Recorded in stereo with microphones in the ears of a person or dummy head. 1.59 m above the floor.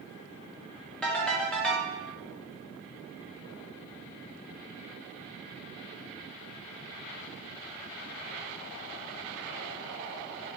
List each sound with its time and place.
1.0 s a ringtone: 5° left (ahead or behind), 0.6 m